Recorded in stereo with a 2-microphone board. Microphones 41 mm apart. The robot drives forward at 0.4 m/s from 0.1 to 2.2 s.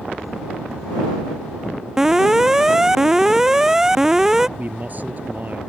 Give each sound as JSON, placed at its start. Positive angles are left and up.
{"t": 2.0, "sound": "an alarm", "side_deg": -10}
{"t": 4.6, "sound": "a man speaking", "side_deg": -45}